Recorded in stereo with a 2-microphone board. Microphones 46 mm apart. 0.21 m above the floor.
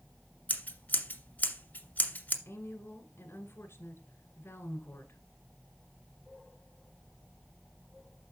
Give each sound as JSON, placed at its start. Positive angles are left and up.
{"t": 0.5, "sound": "scissors", "side_deg": 35, "distance_m": 1.6}
{"t": 2.5, "sound": "a woman speaking", "side_deg": 60, "distance_m": 1.7}